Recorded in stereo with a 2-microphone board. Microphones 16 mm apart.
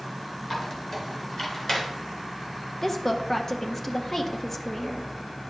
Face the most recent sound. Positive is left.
turn(degrees=20)  # may be behind; listen again after turning